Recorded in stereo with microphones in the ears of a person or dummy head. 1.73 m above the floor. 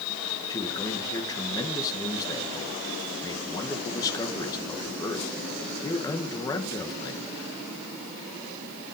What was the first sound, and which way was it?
A man speaking, 20° left (ahead or behind).